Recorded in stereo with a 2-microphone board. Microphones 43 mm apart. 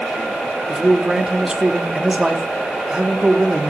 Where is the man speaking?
20° right (ahead or behind), 0.8 m.